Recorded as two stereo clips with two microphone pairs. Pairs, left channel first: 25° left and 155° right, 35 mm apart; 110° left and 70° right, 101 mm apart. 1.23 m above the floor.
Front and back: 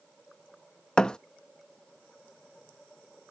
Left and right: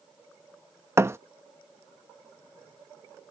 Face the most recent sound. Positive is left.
turn(degrees=-30)